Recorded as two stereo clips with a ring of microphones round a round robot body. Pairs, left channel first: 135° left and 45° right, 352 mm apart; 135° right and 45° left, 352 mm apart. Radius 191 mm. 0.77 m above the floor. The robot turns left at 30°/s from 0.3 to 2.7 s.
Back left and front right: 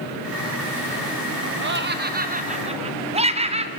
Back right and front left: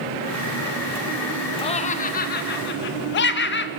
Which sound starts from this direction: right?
Laughter, at 1.6 s.